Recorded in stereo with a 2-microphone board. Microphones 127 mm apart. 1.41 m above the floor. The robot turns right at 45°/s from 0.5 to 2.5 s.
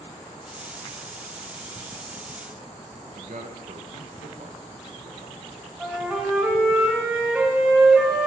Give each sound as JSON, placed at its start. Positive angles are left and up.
{"t": 3.1, "sound": "a man speaking", "side_deg": -70, "distance_m": 1.0}
{"t": 5.8, "sound": "a flute", "side_deg": -10, "distance_m": 2.0}